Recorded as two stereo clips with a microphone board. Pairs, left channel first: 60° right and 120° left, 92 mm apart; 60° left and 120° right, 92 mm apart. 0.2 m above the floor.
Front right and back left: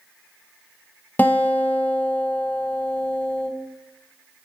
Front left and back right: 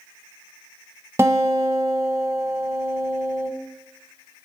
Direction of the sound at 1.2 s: 105° right.